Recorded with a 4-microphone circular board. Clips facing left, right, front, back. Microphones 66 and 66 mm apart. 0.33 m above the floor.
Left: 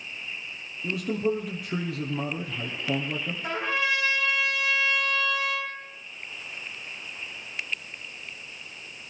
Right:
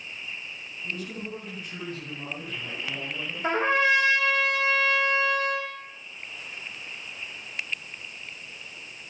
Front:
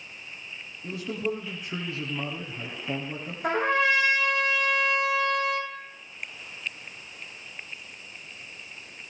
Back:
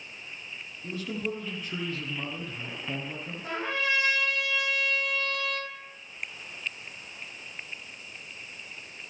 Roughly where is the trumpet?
Ahead right.